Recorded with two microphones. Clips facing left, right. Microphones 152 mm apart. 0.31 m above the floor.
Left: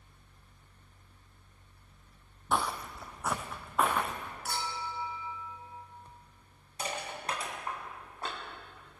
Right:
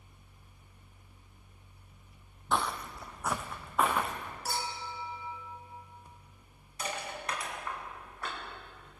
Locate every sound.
2.5 s footsteps: 10° left (ahead or behind), 0.5 m; by 4.3 s centre (ahead or behind), 1.6 m
4.5 s a clink: 35° right (ahead or behind), 1.9 m
6.8 s crushing: 30° left (ahead or behind), 2.5 m